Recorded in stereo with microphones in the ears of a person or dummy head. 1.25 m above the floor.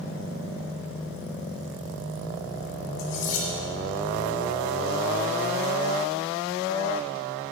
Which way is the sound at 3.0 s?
75° left (ahead or behind).